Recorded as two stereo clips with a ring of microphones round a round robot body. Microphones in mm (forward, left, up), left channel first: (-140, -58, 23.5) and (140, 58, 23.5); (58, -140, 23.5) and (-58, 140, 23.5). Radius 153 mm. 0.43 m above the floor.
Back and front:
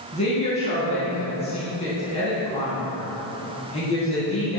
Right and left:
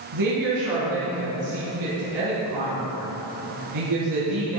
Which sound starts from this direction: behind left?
A woman speaking, at 0.1 s.